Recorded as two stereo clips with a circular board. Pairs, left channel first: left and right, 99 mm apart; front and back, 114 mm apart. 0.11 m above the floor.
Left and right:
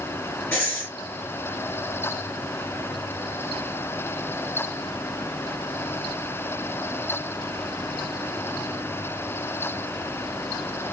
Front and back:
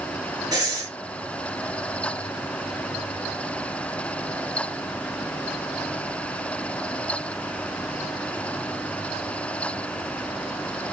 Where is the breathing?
150° left, 2 m.